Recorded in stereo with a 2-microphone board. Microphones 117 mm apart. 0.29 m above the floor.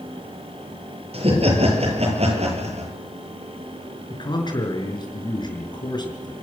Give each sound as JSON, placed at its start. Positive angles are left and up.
{"t": 1.1, "sound": "laughter", "side_deg": -60, "distance_m": 7.0}
{"t": 4.1, "sound": "a man speaking", "side_deg": 40, "distance_m": 5.0}